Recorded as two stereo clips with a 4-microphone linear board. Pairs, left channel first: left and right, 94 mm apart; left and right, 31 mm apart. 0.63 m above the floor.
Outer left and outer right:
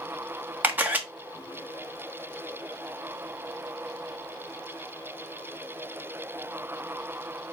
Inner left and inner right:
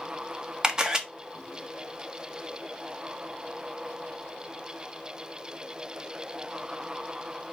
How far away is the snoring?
I don't hear snoring.